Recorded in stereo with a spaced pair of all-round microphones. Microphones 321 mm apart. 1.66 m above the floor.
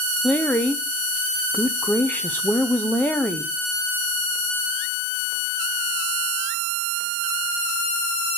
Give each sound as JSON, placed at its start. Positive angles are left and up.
{"t": 0.2, "sound": "a woman speaking", "side_deg": 5, "distance_m": 0.6}